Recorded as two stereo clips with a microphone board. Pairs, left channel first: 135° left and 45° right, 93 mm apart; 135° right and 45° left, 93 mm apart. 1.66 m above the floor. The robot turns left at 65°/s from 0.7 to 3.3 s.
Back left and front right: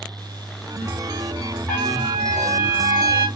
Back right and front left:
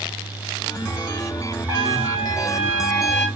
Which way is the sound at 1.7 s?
65° left.